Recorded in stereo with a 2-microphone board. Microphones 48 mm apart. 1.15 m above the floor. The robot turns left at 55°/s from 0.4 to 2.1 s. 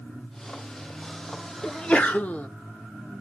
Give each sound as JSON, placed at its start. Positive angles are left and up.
{"t": 1.6, "sound": "a sneeze", "side_deg": 15, "distance_m": 0.5}